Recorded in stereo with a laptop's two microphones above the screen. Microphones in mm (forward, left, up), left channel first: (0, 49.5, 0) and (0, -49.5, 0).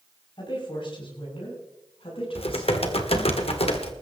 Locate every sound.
0.4 s a woman speaking: 55° left (ahead or behind), 6 m; by 3.4 s 70° left (ahead or behind), 9 m
2.4 s typing on a keyboard: 70° left (ahead or behind), 1.5 m